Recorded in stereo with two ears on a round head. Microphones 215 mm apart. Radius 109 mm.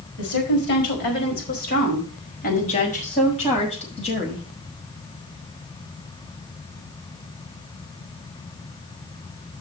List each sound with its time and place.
0.2 s a woman speaking: 45° left (ahead or behind), 5 m; by 4.5 s 25° left (ahead or behind), 5.5 m